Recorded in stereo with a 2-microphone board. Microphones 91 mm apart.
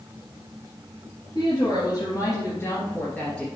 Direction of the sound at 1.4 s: 55° left (ahead or behind).